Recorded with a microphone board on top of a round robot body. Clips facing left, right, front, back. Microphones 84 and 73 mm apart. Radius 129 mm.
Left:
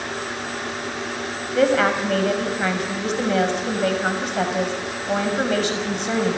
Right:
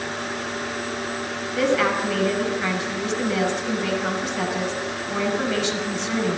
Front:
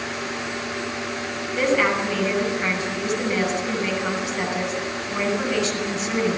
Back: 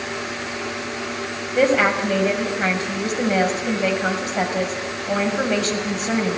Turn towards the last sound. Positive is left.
turn(degrees=135)